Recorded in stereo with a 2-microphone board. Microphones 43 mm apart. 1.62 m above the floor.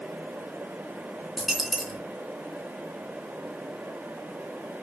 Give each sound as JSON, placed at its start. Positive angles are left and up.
{"t": 1.4, "sound": "a dropped coin", "side_deg": 0, "distance_m": 3.5}